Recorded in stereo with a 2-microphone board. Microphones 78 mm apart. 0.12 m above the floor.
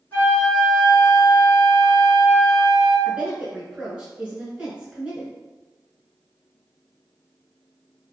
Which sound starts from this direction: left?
A flute, at 0.1 s.